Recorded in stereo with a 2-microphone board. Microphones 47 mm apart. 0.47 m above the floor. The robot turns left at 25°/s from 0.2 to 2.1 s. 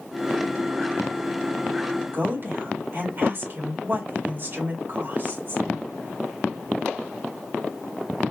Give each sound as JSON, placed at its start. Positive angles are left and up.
{"t": 2.1, "sound": "a woman speaking", "side_deg": -50, "distance_m": 1.8}